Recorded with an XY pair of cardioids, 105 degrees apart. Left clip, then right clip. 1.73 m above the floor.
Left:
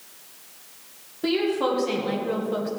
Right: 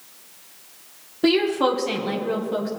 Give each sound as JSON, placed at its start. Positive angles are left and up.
{"t": 1.2, "sound": "a woman speaking", "azimuth_deg": -45, "distance_m": 1.5}